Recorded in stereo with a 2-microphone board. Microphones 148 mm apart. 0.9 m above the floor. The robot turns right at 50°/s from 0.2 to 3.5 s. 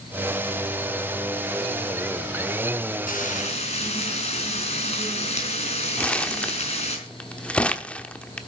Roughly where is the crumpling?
Centre.